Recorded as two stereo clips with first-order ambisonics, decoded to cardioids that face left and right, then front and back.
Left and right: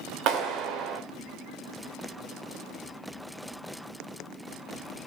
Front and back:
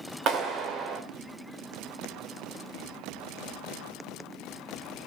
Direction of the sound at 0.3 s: 130° right.